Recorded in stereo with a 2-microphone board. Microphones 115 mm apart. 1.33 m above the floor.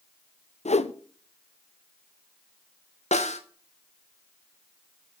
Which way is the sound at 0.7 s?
75° left (ahead or behind).